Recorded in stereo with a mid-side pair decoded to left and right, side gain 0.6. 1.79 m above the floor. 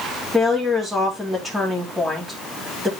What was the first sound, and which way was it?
A woman speaking, 15° right.